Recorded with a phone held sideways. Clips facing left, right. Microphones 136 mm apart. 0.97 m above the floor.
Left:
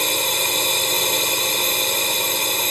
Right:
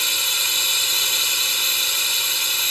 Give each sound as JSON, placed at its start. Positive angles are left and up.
{"t": 0.0, "sound": "a drone", "side_deg": 50}